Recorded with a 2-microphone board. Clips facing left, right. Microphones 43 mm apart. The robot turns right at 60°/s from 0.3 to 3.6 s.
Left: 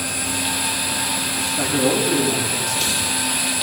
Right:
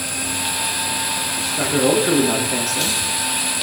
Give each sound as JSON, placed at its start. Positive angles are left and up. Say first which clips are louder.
{"t": 1.6, "sound": "a man speaking", "louder": "right 3 dB", "azimuth_deg": -170, "distance_m": 6.5}